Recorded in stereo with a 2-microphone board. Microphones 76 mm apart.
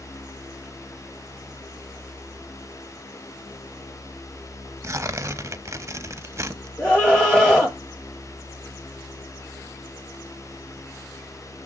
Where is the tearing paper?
40° right (ahead or behind), 0.6 m.